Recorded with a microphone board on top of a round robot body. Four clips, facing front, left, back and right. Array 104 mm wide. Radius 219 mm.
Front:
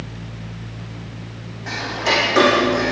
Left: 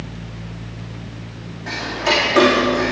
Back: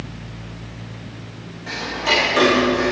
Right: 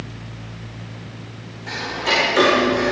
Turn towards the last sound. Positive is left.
turn(degrees=35)